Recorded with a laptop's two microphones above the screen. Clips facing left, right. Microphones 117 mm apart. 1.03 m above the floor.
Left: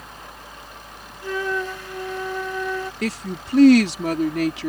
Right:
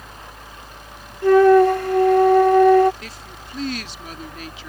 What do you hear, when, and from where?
0.0 s a fan: 80° right
1.2 s a flute: 65° right (ahead or behind)
3.0 s a woman speaking: 75° left (ahead or behind)